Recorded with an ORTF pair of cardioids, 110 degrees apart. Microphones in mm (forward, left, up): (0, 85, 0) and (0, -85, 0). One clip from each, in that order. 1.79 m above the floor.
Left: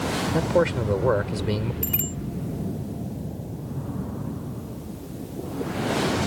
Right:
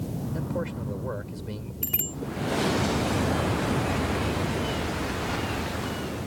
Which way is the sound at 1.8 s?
5° left.